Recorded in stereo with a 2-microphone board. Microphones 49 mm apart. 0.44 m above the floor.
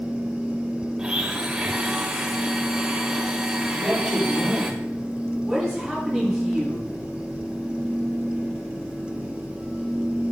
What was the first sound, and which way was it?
A blender, 15° right (ahead or behind).